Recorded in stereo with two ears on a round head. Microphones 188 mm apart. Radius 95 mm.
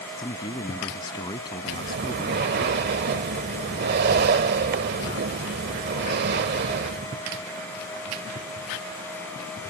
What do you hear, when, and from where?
0.2 s a man speaking: 20° left (ahead or behind)
1.7 s breathing: 50° right (ahead or behind)